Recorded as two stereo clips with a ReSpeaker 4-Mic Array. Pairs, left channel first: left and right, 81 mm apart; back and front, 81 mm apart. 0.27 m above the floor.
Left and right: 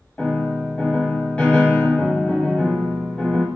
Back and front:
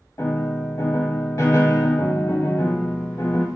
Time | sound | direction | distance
0.2 | a piano | 155° left | 1.4 m